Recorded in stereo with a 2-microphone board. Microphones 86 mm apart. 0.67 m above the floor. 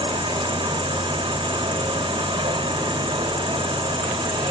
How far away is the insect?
About 1.0 m.